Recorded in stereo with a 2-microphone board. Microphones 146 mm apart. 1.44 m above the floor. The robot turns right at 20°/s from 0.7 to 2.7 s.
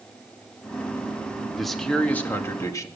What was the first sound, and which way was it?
A man speaking, centre (ahead or behind).